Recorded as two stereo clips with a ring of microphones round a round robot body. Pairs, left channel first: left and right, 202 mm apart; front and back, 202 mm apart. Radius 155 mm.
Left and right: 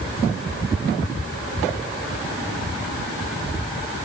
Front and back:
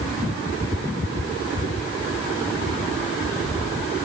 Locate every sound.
Only background noise.